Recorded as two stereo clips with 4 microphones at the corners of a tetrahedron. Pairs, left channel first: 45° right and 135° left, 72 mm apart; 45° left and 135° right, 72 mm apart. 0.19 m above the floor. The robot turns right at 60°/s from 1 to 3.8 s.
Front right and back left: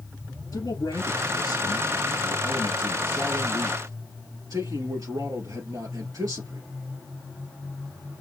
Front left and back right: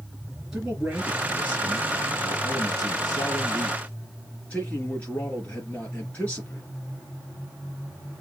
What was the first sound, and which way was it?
A man speaking, 55° right.